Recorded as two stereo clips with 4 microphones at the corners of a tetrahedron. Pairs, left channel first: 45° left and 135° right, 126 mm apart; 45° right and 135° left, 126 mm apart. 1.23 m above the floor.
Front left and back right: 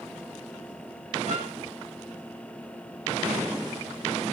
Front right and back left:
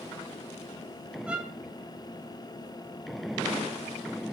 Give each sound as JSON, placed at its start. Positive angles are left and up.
{"t": 1.3, "sound": "a violin", "azimuth_deg": -145, "distance_m": 7.0}